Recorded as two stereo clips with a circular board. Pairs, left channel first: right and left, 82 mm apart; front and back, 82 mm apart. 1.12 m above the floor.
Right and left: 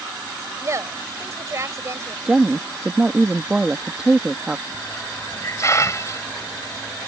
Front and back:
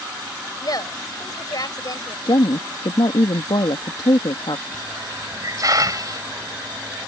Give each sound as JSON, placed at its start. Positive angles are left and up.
{"t": 0.6, "sound": "a woman speaking", "azimuth_deg": 35}
{"t": 2.2, "sound": "a woman speaking", "azimuth_deg": 10}
{"t": 4.7, "sound": "a hiss", "azimuth_deg": -140}